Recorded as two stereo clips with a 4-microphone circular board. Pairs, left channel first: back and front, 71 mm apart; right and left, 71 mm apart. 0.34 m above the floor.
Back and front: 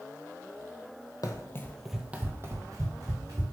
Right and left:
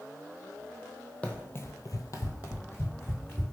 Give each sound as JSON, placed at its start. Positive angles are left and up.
{"t": 1.2, "sound": "running footsteps", "azimuth_deg": -160, "distance_m": 0.6}